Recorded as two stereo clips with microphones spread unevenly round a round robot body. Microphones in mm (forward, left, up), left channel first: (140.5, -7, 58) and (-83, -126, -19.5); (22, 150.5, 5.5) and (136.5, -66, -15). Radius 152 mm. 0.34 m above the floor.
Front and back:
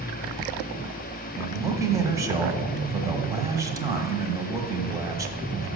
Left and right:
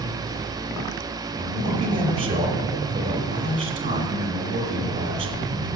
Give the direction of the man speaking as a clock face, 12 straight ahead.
4 o'clock.